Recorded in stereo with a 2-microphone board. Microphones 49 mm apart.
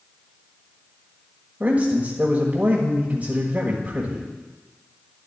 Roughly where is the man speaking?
Right.